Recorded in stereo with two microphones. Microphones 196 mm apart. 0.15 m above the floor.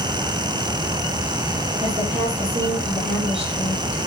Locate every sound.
1.8 s a woman speaking: 30° right (ahead or behind), 6 m